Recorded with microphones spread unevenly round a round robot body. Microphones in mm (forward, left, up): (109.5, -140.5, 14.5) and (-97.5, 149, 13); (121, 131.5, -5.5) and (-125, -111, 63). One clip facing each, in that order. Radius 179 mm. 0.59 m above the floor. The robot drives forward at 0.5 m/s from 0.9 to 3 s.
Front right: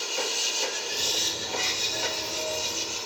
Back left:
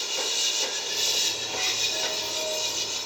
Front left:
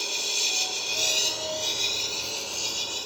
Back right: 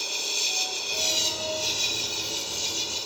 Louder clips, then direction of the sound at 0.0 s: Front right 2 dB, front left 1 dB; 110° left.